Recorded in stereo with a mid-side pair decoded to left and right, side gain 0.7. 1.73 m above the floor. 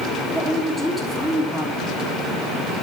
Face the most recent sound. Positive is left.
turn(degrees=0)